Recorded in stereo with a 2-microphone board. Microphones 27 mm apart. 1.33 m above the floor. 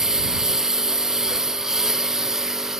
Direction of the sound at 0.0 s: 20° right (ahead or behind).